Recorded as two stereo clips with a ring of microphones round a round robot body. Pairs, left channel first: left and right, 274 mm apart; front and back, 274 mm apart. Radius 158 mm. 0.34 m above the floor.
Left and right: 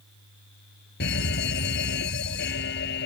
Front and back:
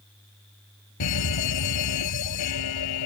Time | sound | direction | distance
1.0 | a fire alarm | 30° left | ?